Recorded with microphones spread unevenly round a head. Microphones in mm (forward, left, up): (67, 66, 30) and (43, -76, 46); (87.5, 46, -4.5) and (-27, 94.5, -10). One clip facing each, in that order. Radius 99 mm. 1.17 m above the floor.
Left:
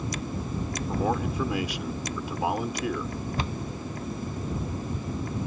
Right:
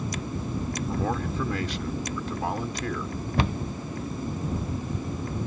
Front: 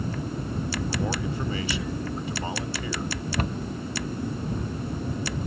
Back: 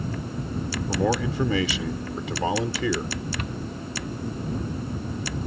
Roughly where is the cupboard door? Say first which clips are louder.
Right 8 dB, front 3 dB; right.